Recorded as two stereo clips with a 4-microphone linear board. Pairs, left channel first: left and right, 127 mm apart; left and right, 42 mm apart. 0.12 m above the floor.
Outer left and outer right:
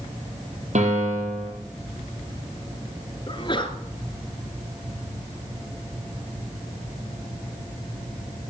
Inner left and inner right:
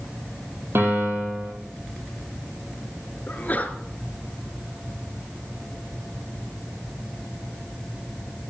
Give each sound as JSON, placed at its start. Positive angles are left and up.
{"t": 0.8, "sound": "a piano", "side_deg": -65, "distance_m": 4.5}
{"t": 3.3, "sound": "a sneeze", "side_deg": 40, "distance_m": 1.8}